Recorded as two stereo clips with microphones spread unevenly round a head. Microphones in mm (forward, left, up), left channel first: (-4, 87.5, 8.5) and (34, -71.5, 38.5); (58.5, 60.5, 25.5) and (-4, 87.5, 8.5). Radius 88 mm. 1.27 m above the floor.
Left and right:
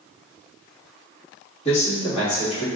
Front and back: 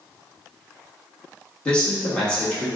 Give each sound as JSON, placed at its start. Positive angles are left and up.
{"t": 1.6, "sound": "a man speaking", "azimuth_deg": 50, "distance_m": 1.7}